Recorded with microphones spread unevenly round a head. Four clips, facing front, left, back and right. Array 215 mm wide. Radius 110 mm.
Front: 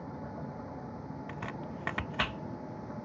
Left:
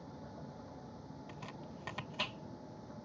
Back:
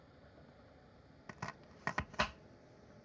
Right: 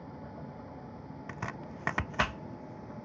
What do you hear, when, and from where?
0.0 s a vehicle: 15° right; by 3.1 s 20° right
1.3 s chopping: 70° right